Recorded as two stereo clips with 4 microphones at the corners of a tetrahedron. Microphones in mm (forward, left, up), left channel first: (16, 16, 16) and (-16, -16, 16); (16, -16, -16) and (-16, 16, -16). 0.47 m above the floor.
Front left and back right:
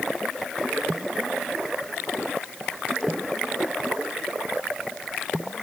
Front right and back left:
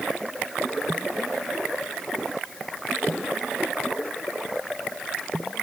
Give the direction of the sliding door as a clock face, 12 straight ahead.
I don't hear a sliding door.